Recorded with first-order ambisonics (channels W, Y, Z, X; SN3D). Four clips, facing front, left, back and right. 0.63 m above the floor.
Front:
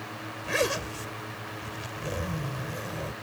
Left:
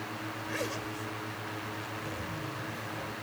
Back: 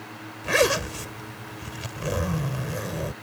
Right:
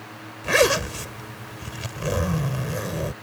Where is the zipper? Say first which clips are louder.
Right 18 dB, back 6 dB; 115° right.